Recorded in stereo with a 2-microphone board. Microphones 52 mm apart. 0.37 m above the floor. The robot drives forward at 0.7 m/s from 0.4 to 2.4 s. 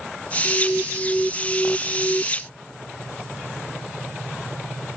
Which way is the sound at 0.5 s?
15° left (ahead or behind).